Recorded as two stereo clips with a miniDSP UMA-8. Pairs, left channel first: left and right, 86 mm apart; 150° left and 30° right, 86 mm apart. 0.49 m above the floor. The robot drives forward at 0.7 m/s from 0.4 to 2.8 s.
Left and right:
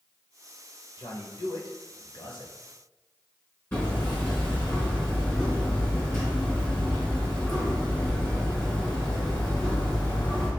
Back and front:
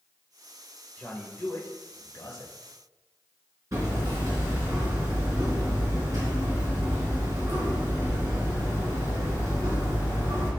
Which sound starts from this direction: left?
A man speaking, at 1.0 s.